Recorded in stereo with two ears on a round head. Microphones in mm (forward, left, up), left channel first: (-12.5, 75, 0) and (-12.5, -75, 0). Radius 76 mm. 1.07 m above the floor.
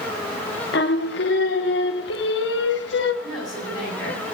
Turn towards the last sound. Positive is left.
turn(degrees=0)  # may be behind; listen again after turning